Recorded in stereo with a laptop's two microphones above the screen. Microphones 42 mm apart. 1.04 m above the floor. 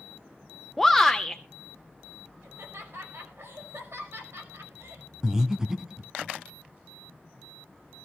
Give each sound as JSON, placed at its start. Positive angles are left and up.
{"t": 0.8, "sound": "a shout", "side_deg": 0, "distance_m": 0.6}
{"t": 2.4, "sound": "laughter", "side_deg": -80, "distance_m": 5.5}
{"t": 5.2, "sound": "breathing", "side_deg": -15, "distance_m": 1.7}